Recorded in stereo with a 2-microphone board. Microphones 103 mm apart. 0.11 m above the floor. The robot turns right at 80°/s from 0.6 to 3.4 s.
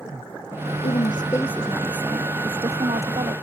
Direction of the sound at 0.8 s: 105° left.